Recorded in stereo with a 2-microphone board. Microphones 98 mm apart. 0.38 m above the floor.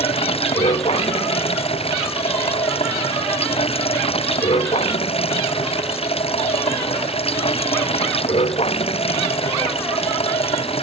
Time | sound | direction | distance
0.0 | running water | 90° left | ?